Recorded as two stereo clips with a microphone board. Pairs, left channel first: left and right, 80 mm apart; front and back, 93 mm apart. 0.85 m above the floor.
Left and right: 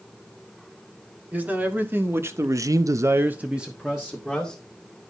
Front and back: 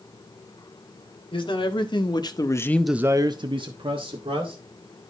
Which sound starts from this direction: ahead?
A man speaking, at 1.3 s.